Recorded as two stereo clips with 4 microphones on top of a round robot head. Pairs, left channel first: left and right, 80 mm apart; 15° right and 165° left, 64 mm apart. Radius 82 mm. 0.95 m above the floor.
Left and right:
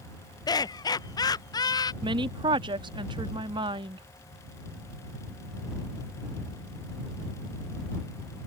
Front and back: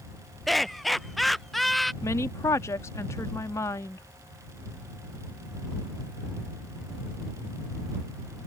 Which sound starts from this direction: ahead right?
A woman speaking, at 2.0 s.